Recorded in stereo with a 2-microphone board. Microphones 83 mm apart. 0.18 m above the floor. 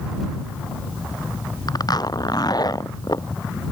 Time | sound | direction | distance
1.7 | a zipper | 55° left (ahead or behind) | ?